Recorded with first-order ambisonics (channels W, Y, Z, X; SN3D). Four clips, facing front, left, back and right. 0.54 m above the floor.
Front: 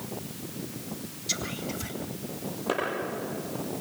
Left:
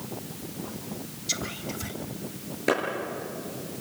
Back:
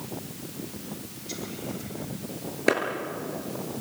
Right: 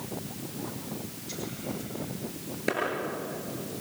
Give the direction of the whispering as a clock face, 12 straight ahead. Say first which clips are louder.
Left 5 dB, front 3 dB; 10 o'clock.